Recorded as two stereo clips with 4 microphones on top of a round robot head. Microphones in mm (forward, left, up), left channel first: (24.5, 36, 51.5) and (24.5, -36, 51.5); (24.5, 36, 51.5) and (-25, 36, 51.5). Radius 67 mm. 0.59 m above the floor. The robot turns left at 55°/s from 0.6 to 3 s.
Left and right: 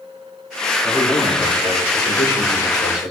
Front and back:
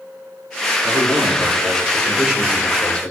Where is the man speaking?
175° right, 9.5 m; by 3.1 s 65° left, 9.5 m.